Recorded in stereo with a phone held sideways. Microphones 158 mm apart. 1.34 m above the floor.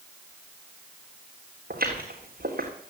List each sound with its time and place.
1.7 s footsteps: 70° right (ahead or behind), 3.5 m